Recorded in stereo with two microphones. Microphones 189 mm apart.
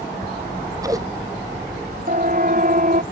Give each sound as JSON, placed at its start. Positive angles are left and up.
{"t": 0.3, "sound": "scissors", "side_deg": -20}
{"t": 2.1, "sound": "a siren", "side_deg": -45}